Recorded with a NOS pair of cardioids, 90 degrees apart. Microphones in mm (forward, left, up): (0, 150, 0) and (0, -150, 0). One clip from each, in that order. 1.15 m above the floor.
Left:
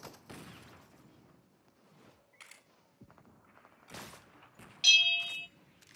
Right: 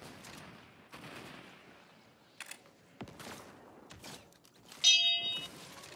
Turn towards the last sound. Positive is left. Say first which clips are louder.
# left 2 dB
turn(degrees=-10)